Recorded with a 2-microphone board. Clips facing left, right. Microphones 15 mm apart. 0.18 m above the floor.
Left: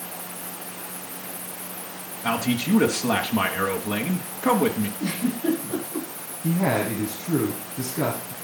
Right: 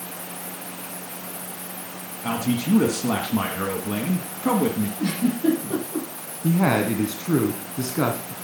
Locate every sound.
2.2 s a man speaking: 20° left (ahead or behind), 1.5 m
5.0 s a giggle: 45° right (ahead or behind), 8 m
6.4 s a woman speaking: 40° right (ahead or behind), 2 m